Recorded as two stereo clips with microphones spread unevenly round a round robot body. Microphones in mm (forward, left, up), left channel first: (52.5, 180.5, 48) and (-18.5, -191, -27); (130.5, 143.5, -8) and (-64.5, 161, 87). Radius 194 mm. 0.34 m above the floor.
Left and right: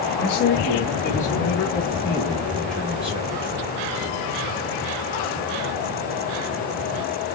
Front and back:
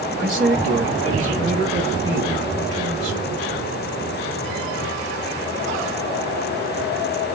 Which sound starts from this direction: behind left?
A man speaking, at 0.2 s.